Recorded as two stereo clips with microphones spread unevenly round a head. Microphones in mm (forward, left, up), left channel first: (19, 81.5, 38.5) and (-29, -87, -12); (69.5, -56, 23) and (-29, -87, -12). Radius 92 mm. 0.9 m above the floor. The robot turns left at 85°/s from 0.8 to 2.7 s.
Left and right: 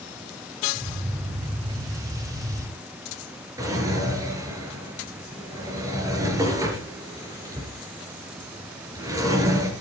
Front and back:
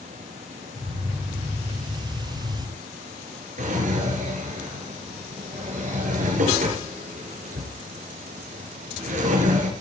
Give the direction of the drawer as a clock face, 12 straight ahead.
6 o'clock.